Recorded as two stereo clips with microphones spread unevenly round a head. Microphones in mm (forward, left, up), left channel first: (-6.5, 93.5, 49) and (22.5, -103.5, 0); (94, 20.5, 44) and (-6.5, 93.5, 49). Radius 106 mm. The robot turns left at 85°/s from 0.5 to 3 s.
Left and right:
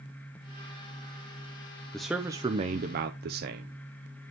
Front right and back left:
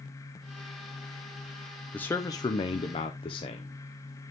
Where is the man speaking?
40° left, 0.6 m; by 4.3 s 50° right, 0.6 m.